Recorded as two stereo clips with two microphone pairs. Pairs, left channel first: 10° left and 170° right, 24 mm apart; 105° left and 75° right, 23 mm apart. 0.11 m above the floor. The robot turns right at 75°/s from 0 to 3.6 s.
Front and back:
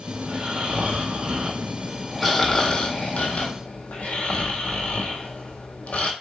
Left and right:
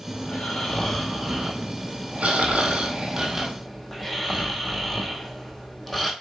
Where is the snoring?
125° left, 1.2 m; by 6.1 s 20° left, 1.2 m.